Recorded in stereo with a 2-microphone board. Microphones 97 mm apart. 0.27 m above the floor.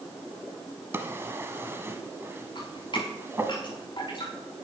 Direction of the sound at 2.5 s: 50° left (ahead or behind).